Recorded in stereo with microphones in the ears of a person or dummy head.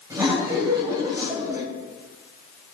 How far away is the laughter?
About 3 m.